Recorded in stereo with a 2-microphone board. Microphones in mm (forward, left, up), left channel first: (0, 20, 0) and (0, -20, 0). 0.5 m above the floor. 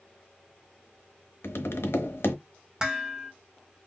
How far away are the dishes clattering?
About 0.9 m.